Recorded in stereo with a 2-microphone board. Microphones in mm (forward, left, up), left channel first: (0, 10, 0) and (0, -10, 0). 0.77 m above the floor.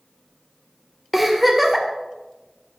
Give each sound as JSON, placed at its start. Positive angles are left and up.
{"t": 1.1, "sound": "a giggle", "side_deg": -5, "distance_m": 2.0}